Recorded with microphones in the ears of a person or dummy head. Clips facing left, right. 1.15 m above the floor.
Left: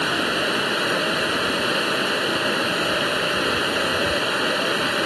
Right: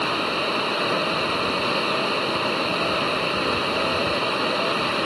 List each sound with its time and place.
0.0 s running water: 10° left (ahead or behind)